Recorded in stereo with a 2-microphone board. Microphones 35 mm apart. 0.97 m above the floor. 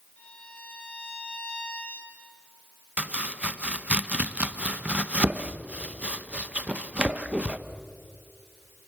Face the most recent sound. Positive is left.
turn(degrees=-35)  # may be behind; listen again after turning